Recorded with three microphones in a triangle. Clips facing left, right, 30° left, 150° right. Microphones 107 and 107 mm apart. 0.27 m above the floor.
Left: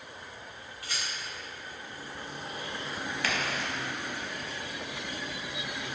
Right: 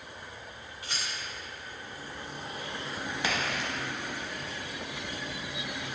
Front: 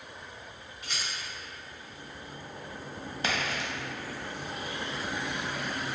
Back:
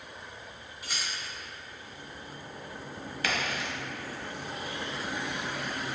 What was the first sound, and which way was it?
A rattle, 70° right.